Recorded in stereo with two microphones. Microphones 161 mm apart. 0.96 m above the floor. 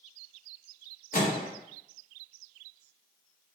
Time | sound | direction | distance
1.1 | a microwave | 60° left (ahead or behind) | 0.7 m